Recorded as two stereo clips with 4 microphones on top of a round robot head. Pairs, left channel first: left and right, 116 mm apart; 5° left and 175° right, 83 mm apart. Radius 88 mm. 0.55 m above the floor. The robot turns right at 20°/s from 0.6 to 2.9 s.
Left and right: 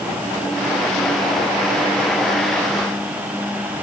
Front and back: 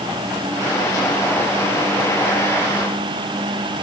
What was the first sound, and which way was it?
Only background noise.